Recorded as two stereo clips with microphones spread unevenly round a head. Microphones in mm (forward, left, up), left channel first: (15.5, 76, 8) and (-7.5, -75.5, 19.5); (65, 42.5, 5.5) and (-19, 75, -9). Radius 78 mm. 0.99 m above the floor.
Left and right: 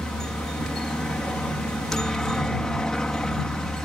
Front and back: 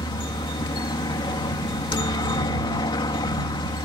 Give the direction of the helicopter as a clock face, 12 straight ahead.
12 o'clock.